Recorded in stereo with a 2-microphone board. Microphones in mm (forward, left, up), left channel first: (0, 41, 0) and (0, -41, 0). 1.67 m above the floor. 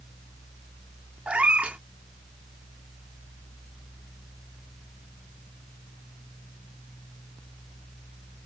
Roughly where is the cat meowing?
Centre.